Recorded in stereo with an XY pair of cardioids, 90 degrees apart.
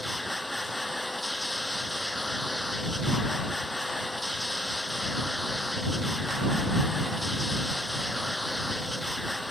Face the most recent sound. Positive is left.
turn(degrees=5)